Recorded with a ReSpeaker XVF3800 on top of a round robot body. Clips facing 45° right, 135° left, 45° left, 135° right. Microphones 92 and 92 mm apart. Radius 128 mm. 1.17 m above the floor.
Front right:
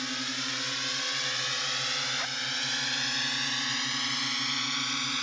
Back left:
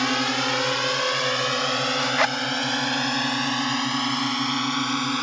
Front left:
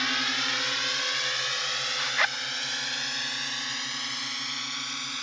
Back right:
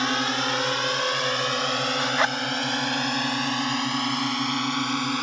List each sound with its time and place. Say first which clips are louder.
0.0 s a drone: back left 13 dB, back right 6 dB; 165° left; by 5.2 s straight behind
2.0 s a zipper: back left 14 dB, back right 3 dB; 160° left